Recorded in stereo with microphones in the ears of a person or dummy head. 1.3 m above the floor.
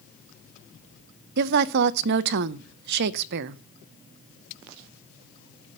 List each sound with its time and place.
1.4 s a woman speaking: 60° right (ahead or behind), 0.5 m